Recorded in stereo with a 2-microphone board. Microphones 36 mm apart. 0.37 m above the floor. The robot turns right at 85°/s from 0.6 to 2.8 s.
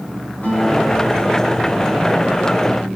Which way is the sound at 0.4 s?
45° left.